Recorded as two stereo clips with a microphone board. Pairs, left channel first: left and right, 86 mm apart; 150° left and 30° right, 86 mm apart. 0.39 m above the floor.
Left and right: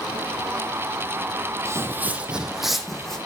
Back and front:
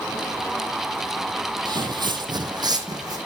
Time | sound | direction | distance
1.6 | footsteps | 45° right | 0.7 m